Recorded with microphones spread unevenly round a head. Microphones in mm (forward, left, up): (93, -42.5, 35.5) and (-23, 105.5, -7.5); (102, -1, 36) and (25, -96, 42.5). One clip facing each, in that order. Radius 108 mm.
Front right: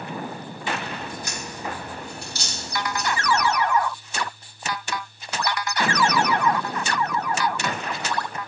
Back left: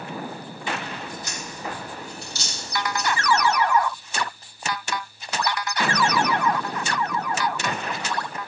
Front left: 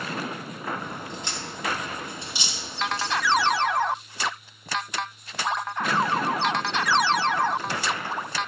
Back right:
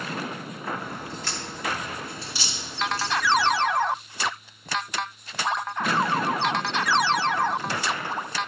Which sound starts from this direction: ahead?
A crack, at 0.8 s.